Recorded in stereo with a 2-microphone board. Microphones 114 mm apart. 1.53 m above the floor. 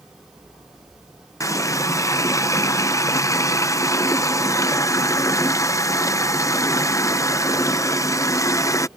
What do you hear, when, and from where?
1.4 s a running tap: 30° left (ahead or behind)